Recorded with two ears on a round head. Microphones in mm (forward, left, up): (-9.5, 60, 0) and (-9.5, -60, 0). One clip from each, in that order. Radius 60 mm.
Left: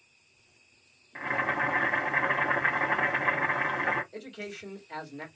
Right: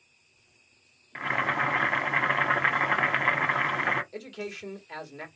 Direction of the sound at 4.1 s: 50° right (ahead or behind).